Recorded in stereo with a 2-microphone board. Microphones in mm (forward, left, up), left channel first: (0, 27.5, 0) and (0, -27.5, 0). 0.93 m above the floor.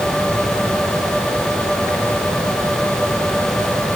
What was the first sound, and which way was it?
Only background noise.